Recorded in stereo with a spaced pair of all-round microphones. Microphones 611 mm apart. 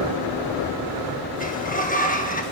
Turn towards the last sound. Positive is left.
turn(degrees=15)  # may be behind; listen again after turning